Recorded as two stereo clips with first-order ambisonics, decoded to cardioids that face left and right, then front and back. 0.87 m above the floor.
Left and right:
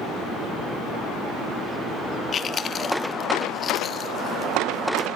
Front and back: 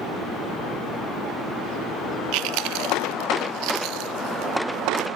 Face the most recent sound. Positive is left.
turn(degrees=155)